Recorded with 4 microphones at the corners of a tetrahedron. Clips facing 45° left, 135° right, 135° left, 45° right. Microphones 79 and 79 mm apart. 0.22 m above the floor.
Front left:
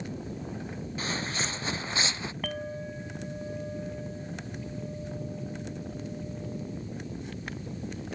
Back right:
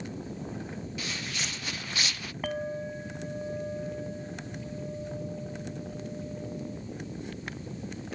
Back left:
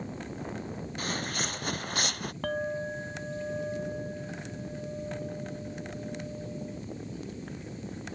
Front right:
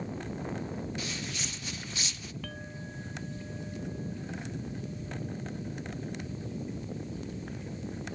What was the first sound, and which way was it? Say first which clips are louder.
Footsteps: front left 7 dB, back left 4 dB; 95° left.